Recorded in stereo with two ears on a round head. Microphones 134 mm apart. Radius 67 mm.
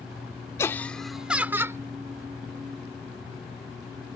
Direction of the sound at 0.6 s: 20° left (ahead or behind).